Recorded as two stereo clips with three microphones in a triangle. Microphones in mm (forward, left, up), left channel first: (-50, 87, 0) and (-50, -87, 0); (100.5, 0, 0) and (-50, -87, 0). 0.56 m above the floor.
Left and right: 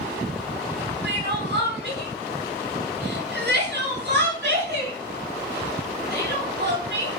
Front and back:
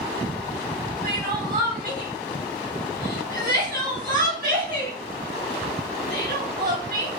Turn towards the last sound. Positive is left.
turn(degrees=-110)